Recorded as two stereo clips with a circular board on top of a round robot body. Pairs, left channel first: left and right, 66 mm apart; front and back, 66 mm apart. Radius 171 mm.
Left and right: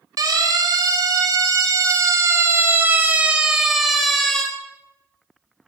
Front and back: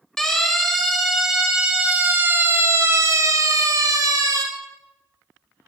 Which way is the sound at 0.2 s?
85° right.